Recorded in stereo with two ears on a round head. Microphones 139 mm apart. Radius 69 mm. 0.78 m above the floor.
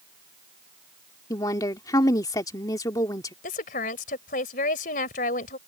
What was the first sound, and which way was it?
A woman speaking, 25° left (ahead or behind).